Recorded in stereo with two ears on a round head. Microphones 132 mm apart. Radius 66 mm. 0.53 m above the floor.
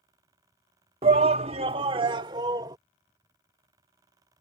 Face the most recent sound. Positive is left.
turn(degrees=-25)  # may be behind; listen again after turning